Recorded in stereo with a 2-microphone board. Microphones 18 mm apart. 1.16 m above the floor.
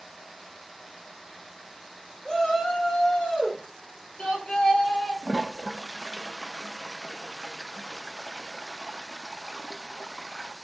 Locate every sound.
2.2 s a shout: 55° left (ahead or behind), 5 m; by 5.1 s 75° left (ahead or behind), 4.5 m
5.2 s a toilet flushing: 20° right (ahead or behind), 0.6 m